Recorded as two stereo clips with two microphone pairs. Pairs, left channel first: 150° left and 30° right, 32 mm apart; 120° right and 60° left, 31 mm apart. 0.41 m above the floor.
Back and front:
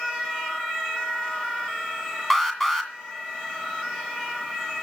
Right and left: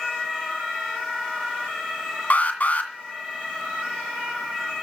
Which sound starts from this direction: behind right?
An alarm, at 2.3 s.